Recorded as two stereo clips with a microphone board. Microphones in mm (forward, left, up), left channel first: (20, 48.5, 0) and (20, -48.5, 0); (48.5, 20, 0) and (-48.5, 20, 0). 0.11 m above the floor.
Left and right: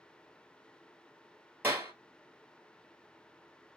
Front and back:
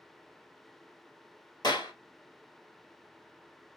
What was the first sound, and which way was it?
A clap, 25° right.